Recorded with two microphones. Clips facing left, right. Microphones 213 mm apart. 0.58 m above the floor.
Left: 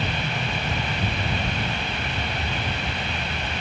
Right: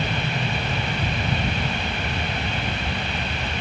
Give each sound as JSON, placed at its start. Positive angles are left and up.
{"t": 0.0, "sound": "an aircraft", "side_deg": -15}